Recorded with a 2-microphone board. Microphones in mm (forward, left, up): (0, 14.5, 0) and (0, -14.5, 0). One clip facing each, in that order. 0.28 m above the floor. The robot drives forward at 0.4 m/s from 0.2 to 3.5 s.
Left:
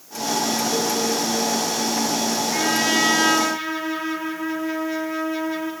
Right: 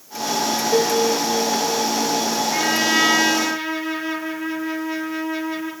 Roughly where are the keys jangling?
I don't hear keys jangling.